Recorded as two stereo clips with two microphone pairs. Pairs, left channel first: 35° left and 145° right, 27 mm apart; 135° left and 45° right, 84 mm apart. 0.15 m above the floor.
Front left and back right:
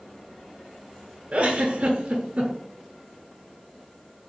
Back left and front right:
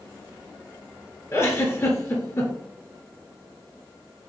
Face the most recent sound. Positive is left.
turn(degrees=-175)